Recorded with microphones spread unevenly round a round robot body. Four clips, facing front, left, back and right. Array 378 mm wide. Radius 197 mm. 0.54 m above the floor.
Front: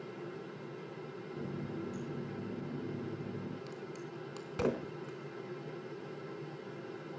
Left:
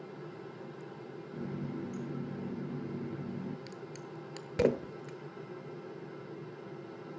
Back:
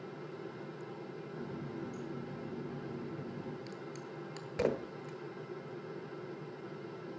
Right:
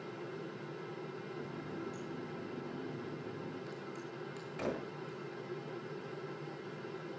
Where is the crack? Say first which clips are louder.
Even, front 1 dB; 70° left, 1.3 m.